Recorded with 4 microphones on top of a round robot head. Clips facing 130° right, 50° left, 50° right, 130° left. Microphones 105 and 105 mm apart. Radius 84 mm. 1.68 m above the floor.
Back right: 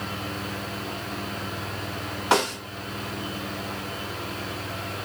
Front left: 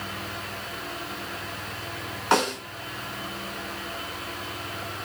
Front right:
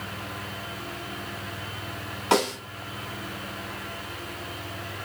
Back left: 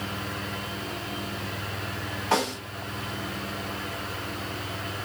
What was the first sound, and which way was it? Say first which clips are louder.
A snare drum: even, front right 3 dB; 50° right.